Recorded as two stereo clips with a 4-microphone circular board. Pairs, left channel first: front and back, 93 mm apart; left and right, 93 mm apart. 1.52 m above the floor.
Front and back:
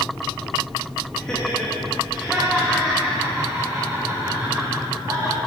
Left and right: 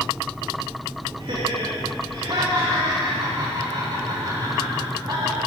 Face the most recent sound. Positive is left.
turn(degrees=-125)